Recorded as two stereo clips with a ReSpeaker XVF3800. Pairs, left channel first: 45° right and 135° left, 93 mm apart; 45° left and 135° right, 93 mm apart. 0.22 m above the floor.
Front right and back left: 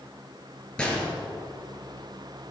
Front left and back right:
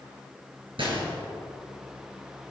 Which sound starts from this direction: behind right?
A gunshot, at 0.8 s.